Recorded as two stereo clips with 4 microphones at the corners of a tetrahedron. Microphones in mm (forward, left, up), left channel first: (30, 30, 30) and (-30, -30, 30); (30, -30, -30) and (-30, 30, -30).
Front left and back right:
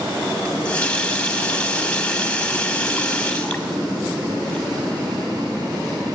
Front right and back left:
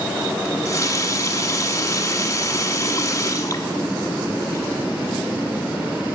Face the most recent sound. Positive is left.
turn(degrees=-25)